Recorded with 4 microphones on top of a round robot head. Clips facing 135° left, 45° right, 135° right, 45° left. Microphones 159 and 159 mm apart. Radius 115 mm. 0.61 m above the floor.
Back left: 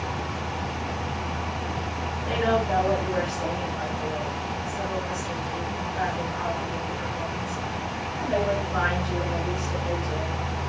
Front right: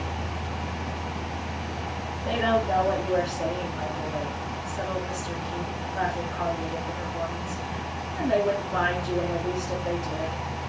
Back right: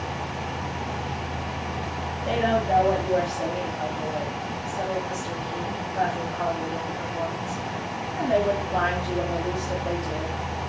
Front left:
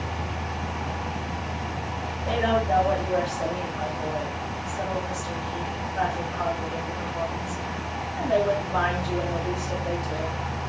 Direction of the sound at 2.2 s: 70° right.